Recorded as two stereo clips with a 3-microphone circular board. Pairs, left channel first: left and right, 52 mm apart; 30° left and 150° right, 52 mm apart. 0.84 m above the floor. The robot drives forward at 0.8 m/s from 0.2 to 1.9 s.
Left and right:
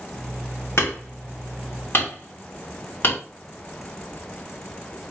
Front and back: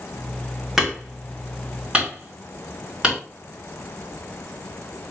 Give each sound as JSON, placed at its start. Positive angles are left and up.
{"t": 0.8, "sound": "hammering", "azimuth_deg": 125, "distance_m": 2.5}